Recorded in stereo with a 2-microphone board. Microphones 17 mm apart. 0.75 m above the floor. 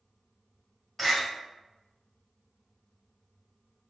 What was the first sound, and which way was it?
A door slam, 5° left (ahead or behind).